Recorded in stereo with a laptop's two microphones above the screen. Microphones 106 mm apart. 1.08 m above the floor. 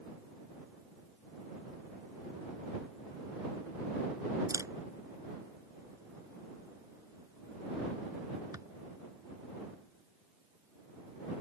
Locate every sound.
4.5 s a camera shutter: 30° right (ahead or behind)